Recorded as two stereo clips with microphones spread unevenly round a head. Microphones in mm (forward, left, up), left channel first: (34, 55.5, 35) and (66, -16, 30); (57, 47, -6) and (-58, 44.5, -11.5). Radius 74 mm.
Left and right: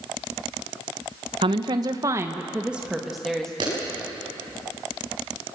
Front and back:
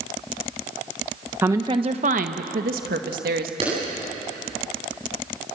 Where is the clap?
120° right, 10 m.